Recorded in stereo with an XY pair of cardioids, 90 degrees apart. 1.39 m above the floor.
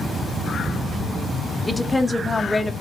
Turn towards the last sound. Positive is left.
turn(degrees=10)